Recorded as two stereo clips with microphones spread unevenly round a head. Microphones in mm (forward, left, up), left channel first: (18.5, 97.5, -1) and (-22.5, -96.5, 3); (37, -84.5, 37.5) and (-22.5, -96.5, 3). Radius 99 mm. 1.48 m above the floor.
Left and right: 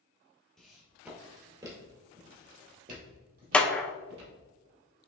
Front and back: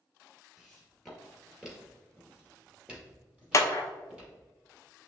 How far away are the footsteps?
About 1.7 m.